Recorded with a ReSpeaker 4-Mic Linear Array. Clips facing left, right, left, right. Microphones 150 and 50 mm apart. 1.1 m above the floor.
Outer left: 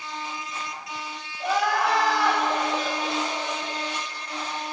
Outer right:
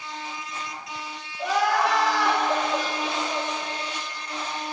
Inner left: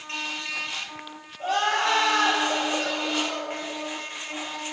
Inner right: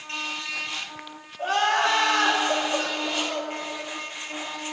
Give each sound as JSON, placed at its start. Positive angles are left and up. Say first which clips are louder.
{"t": 1.4, "sound": "crying", "louder": "outer right 1 dB, inner right 2 dB", "side_deg": -80, "distance_m": 2.5}